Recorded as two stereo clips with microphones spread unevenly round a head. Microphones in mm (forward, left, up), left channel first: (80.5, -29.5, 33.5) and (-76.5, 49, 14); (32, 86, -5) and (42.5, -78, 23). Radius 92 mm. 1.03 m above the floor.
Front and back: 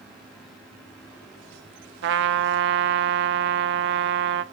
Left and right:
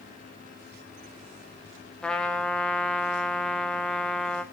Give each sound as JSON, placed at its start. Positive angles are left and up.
{"t": 2.0, "sound": "a trumpet", "azimuth_deg": 180, "distance_m": 0.7}